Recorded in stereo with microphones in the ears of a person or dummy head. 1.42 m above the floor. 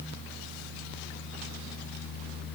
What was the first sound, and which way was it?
Only background noise.